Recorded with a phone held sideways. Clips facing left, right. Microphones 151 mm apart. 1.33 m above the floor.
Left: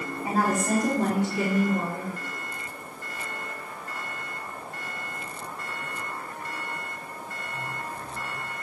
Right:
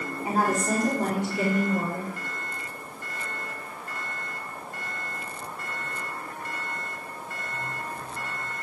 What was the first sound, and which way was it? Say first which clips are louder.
A woman speaking: even; 10° left (ahead or behind).